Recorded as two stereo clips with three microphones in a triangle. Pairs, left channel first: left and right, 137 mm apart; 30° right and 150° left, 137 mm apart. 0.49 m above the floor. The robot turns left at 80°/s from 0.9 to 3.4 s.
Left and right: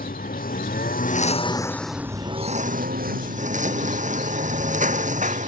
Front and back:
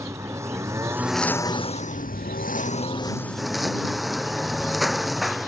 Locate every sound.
0.0 s a lawn mower: 80° left; by 5.5 s 120° right